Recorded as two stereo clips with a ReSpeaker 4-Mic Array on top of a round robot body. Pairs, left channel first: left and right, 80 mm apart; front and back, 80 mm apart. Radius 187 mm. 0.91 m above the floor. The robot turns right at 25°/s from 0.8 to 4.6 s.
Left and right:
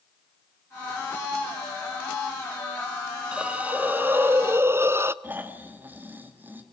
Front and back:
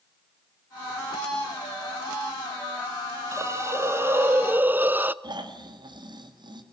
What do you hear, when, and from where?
3.3 s a hiss: 160° right, 0.9 m; by 5.1 s 130° right, 0.9 m
5.2 s snoring: 155° right, 2 m